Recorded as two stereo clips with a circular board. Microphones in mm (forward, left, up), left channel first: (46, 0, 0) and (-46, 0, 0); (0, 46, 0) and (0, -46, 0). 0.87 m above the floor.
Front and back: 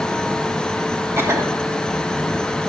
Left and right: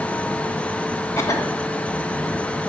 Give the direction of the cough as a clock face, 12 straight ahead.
8 o'clock.